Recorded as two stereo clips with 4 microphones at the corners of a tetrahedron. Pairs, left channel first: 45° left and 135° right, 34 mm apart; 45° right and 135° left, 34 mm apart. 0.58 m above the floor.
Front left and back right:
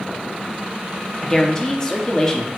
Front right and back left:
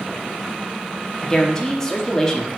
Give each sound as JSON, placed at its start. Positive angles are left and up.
{"t": 1.2, "sound": "a woman speaking", "azimuth_deg": 0, "distance_m": 0.6}